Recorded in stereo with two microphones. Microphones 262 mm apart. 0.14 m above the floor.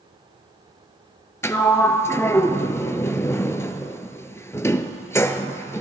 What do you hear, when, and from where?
1.4 s a sliding door: 10° left (ahead or behind), 0.6 m